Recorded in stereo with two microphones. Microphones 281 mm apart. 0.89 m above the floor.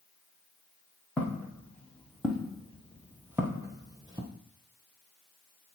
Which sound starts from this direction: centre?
Footsteps, at 1.2 s.